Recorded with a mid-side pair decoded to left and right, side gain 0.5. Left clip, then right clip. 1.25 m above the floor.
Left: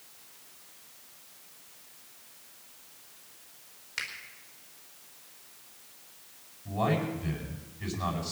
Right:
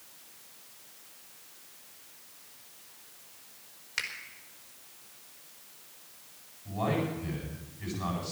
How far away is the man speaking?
About 8 m.